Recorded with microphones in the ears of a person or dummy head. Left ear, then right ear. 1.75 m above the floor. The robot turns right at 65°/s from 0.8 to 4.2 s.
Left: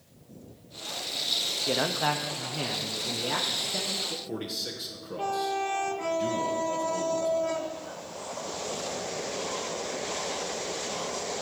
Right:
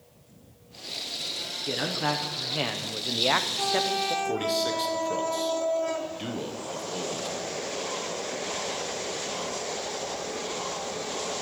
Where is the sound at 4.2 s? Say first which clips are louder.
Right 8 dB; 30° right (ahead or behind), 1.0 m.